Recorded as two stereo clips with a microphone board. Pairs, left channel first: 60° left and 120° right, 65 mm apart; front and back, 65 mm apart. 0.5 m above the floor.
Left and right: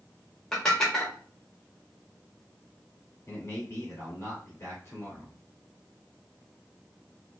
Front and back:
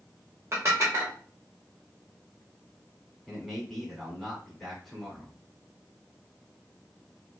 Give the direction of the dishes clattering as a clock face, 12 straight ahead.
7 o'clock.